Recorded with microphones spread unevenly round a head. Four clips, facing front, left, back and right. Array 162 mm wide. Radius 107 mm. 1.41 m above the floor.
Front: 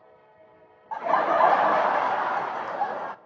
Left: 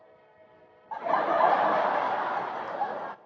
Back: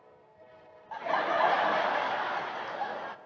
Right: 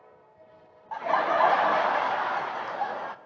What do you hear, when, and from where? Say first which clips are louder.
0.9 s laughter: right 1 dB, front 7 dB; 20° right, 0.5 m